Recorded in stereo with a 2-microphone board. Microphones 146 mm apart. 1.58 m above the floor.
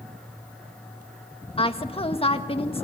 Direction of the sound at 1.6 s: 40° left (ahead or behind).